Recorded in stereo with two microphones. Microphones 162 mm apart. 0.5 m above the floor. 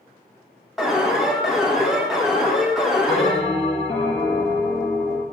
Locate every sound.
0.8 s an alarm: 5° right (ahead or behind), 1.1 m
3.1 s a bell: 25° left (ahead or behind), 1.8 m